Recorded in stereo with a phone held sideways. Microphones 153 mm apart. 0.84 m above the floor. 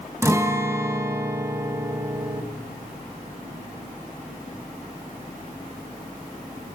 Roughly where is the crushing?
No crushing in this recording.